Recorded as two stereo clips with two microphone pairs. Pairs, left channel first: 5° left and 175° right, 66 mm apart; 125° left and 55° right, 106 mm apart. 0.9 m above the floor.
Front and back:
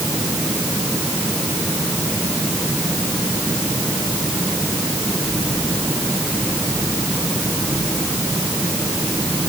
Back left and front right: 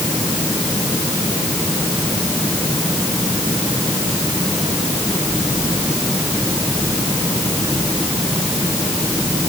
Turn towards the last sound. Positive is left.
No sound to turn to.